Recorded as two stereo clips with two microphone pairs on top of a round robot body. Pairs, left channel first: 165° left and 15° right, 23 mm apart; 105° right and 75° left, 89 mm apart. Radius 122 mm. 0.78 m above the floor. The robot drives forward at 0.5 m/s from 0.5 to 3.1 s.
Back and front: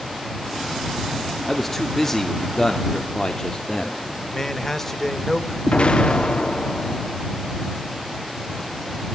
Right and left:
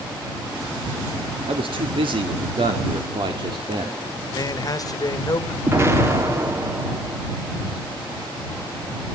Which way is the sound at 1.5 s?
85° left.